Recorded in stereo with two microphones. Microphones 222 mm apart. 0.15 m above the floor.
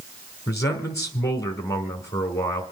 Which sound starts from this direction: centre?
A man speaking, at 0.5 s.